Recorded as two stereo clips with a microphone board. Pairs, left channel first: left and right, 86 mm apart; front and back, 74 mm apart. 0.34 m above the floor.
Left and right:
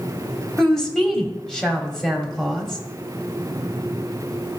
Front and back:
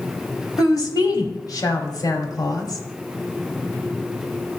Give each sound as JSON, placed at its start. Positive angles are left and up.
{"t": 0.6, "sound": "a woman speaking", "azimuth_deg": 10, "distance_m": 1.8}